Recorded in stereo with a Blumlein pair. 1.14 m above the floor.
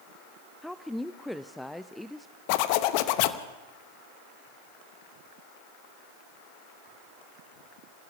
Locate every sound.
0.6 s a woman speaking: straight ahead, 0.5 m
2.5 s a zipper: 45° left, 0.9 m